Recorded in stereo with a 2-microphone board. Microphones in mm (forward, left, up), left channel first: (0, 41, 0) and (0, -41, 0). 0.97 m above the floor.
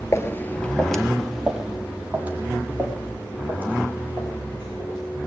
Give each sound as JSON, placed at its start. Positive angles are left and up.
{"t": 0.1, "sound": "footsteps", "side_deg": 35, "distance_m": 1.2}